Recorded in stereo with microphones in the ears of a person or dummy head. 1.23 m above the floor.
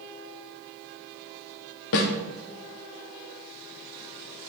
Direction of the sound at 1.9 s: 70° left (ahead or behind).